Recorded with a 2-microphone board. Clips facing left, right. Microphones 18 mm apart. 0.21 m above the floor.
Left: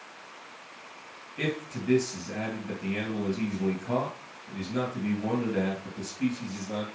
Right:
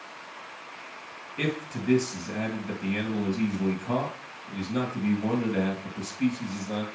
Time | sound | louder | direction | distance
1.4 | a man speaking | right 1 dB | 15° right (ahead or behind) | 3.5 m